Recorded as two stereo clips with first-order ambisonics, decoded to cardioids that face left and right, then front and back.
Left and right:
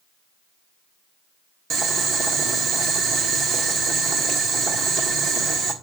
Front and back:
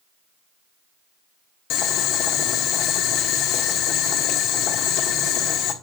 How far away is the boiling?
About 1.3 m.